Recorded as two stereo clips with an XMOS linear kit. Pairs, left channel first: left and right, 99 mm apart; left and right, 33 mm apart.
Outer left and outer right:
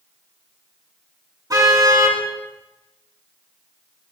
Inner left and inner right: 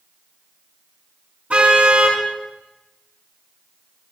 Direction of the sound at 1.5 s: 45° right (ahead or behind).